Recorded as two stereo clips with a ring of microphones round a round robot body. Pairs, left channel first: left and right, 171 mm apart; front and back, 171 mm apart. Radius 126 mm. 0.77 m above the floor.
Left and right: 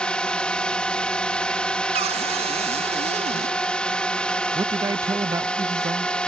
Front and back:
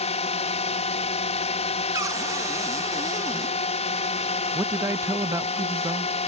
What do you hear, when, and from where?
0.0 s a drone: 10° left
1.9 s a cupboard door: 115° right
4.5 s a man speaking: 130° right